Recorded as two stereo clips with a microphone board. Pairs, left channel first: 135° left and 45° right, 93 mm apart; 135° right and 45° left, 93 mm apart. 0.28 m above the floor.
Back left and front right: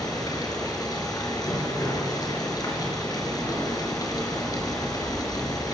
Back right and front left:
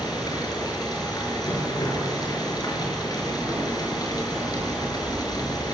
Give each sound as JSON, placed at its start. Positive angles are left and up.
{"t": 0.0, "sound": "running water", "azimuth_deg": 180, "distance_m": 4.5}